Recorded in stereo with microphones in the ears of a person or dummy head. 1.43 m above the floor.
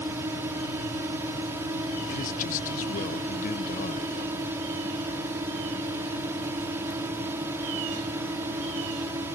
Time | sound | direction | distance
0.0 | a drone | 15° right (ahead or behind) | ?
2.1 | a man speaking | 45° left (ahead or behind) | ?